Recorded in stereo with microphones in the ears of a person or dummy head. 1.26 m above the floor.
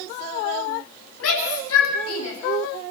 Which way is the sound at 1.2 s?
80° left.